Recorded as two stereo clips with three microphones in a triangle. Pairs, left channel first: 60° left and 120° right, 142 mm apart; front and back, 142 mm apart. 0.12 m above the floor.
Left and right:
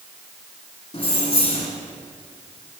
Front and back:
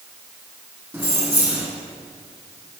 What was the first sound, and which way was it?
Keys jangling, 105° left.